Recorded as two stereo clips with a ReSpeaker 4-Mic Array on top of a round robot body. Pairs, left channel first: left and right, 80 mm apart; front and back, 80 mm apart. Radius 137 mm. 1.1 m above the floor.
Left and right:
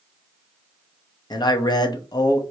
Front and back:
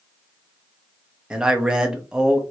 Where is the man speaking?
100° left, 0.9 m.